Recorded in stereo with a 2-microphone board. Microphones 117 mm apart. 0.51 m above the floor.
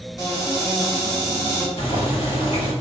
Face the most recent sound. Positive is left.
turn(degrees=50)  # may be behind; listen again after turning